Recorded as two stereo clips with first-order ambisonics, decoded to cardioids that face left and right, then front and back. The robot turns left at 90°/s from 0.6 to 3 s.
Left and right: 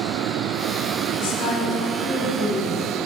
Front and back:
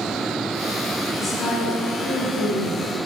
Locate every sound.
1.2 s a woman speaking: 75° left, 4.5 m; by 3.1 s 90° right, 4.5 m